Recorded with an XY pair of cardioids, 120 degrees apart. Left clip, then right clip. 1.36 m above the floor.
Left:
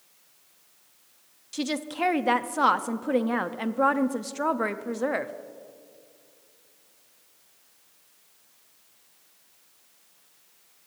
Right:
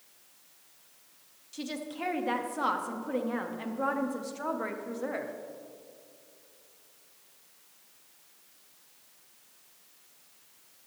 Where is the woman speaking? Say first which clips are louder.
Left 8 dB; 50° left, 0.6 m.